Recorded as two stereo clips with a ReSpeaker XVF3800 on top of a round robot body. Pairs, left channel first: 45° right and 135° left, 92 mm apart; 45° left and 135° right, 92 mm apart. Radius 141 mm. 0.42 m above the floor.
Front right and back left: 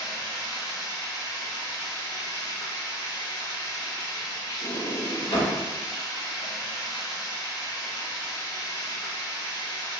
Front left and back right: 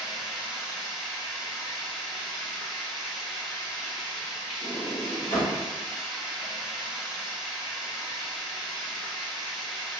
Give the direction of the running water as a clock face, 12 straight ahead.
2 o'clock.